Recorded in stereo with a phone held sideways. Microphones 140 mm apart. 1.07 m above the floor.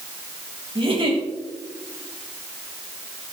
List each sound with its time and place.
0.8 s a giggle: 40° right (ahead or behind), 3.5 m